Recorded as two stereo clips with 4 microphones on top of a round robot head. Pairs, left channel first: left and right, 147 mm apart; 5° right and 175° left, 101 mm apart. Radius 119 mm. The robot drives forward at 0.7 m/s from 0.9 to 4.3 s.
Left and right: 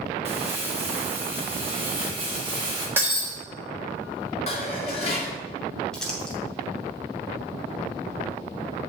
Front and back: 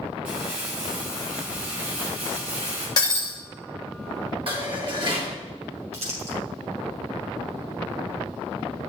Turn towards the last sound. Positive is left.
turn(degrees=175)